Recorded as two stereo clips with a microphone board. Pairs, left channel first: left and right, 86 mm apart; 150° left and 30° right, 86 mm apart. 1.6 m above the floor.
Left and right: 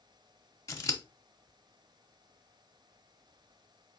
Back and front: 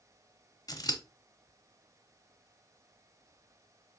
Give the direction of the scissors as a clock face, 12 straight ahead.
8 o'clock.